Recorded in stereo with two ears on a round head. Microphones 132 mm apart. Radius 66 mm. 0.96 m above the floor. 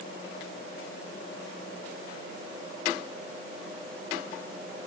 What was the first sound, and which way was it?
Only background noise.